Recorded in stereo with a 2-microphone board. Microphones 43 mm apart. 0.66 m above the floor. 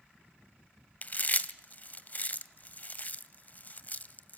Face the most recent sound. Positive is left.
turn(degrees=35)  # may be behind; listen again after turning